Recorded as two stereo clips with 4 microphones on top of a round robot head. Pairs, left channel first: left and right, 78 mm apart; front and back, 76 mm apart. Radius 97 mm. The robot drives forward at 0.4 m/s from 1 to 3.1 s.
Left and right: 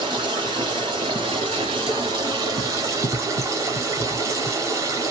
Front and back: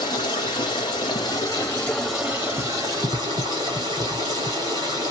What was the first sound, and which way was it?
Running water, 45° right.